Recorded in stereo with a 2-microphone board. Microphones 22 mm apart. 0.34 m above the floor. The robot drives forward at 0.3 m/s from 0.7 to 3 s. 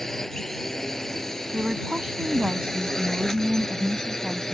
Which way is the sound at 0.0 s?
20° left (ahead or behind).